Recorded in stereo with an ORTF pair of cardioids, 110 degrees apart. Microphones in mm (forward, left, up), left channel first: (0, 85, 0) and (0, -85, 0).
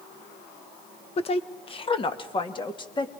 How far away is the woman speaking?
About 1.1 m.